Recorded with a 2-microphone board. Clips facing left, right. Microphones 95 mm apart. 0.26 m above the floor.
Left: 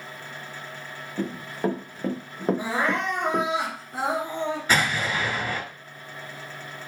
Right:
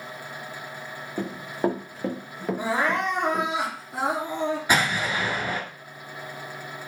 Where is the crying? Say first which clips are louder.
Right 1 dB; 15° right (ahead or behind), 1.6 m.